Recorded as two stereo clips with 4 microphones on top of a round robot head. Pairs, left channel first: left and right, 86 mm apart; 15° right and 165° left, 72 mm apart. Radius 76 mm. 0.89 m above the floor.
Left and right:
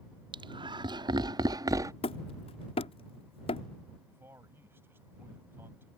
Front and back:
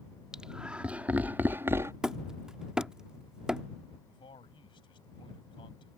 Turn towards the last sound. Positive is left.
turn(degrees=-20)